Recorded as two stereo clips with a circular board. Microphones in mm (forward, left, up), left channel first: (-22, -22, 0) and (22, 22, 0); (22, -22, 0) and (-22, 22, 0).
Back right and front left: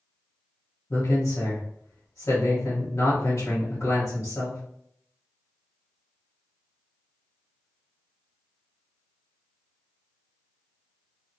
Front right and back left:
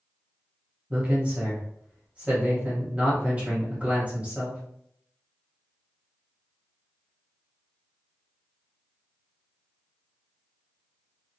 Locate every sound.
0.9 s a man speaking: 160° right, 1.1 m